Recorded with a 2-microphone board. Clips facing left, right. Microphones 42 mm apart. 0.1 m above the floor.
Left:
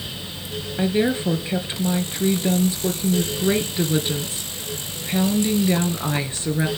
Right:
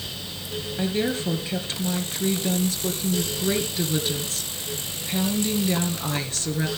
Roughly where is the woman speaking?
Left.